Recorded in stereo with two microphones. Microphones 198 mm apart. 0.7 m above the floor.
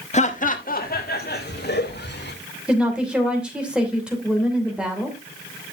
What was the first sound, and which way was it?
Laughter, 35° left (ahead or behind).